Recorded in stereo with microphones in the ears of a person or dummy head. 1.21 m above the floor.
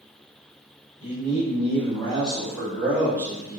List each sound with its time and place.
1.0 s a man speaking: 35° left (ahead or behind), 1.3 m; by 3.6 s 20° right (ahead or behind), 1.9 m